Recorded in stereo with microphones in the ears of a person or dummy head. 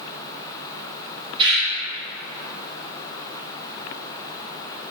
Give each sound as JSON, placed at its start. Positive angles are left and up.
{"t": 1.4, "sound": "a bird", "side_deg": -30, "distance_m": 2.5}